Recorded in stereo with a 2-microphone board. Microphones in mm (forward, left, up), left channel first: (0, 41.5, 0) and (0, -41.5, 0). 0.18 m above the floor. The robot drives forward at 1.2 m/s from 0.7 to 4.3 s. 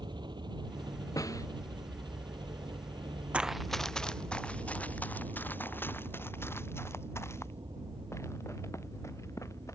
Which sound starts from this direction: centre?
Running footsteps, at 3.3 s.